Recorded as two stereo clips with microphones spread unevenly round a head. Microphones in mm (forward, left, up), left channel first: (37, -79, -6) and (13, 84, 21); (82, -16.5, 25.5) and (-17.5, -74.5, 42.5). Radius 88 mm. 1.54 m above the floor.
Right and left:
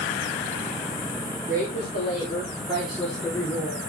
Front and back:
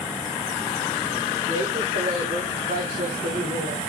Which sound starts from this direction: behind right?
A woman speaking, at 1.5 s.